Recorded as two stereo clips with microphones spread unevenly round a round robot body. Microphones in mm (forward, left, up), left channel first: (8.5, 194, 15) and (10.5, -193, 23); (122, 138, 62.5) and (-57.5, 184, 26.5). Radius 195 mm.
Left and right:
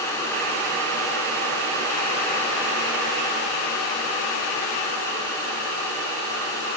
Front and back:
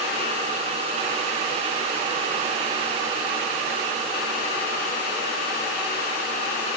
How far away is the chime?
I don't hear a chime.